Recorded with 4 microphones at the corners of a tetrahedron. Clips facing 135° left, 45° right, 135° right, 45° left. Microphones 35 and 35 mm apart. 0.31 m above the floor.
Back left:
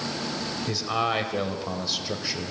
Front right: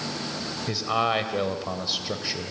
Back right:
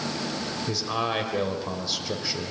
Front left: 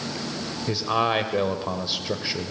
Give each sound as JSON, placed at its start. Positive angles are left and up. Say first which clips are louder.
{"t": 0.7, "sound": "a man speaking", "louder": "front right 2 dB, front left 6 dB", "azimuth_deg": 20, "distance_m": 1.5}